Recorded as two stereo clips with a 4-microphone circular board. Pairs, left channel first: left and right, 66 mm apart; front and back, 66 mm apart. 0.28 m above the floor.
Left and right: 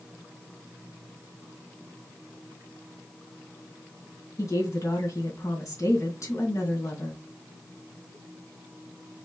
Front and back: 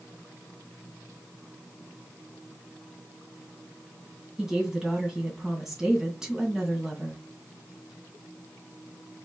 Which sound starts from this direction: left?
A woman speaking, at 4.4 s.